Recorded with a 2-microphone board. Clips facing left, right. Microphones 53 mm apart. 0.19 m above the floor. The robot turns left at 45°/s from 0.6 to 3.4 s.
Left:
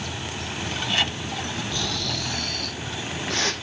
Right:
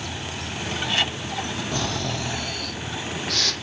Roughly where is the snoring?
Behind right.